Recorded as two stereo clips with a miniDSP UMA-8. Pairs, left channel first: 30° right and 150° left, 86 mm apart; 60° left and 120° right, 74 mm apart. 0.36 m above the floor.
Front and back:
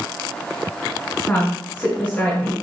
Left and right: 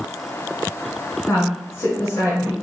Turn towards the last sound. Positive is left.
turn(degrees=25)